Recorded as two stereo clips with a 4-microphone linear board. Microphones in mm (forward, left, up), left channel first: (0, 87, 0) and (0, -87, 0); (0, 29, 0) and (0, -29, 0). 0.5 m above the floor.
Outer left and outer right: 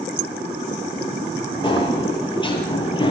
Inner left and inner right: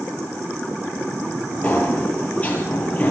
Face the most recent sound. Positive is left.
turn(degrees=25)  # may be behind; listen again after turning